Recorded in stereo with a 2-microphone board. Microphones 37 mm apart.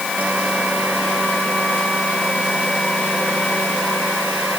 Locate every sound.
Only background noise.